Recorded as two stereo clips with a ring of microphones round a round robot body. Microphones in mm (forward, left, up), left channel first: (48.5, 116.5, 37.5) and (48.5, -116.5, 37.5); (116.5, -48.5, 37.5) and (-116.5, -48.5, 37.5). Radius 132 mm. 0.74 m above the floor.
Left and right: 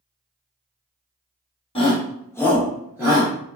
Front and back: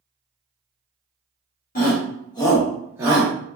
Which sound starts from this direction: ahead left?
A shout, at 1.8 s.